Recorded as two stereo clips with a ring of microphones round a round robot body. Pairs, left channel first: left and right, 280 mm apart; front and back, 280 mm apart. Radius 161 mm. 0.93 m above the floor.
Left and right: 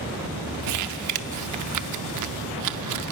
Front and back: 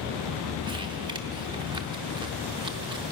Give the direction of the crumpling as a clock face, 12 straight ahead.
3 o'clock.